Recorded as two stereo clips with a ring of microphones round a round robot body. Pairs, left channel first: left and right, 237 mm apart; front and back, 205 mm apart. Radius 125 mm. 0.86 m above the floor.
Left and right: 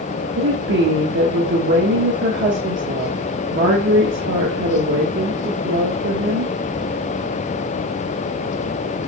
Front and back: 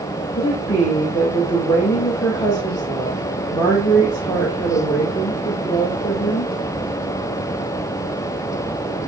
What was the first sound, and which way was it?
A woman speaking, 70° right.